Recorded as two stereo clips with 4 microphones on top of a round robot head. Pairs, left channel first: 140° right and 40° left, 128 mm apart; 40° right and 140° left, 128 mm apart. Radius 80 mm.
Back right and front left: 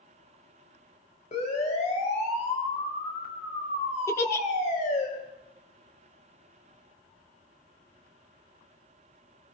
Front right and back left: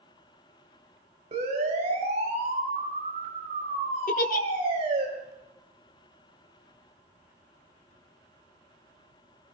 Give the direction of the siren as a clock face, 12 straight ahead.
6 o'clock.